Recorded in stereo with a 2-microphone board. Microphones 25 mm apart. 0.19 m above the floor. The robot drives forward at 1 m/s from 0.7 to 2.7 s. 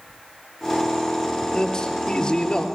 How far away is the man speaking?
About 5 m.